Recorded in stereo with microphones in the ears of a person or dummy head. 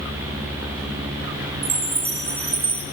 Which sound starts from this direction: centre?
A chime, at 1.6 s.